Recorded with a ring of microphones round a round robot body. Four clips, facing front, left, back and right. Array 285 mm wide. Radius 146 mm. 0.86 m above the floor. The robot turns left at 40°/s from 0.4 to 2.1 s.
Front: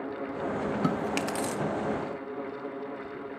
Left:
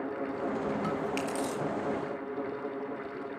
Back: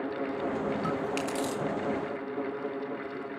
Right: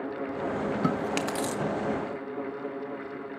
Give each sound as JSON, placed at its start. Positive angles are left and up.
{"t": 0.8, "sound": "chewing", "azimuth_deg": -50, "distance_m": 1.9}